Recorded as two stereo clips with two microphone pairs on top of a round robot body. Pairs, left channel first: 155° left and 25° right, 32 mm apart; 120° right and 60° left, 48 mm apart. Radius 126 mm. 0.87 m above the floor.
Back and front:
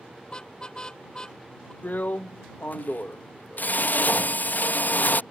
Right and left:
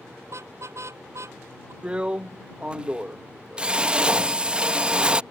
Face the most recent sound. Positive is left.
turn(degrees=125)